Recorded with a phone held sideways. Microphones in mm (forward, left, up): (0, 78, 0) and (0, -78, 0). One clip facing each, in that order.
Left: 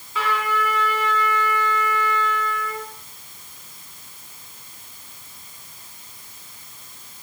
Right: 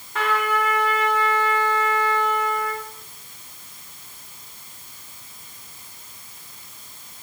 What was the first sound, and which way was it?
A trumpet, 60° right (ahead or behind).